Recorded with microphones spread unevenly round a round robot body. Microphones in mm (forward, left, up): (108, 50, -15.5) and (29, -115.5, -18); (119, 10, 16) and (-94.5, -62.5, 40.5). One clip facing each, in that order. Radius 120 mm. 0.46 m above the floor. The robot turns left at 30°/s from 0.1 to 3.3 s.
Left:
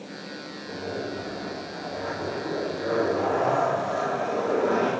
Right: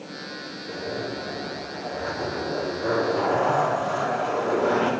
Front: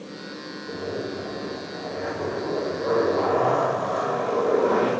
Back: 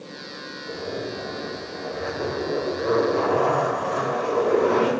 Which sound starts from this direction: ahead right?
A zipper, at 0.7 s.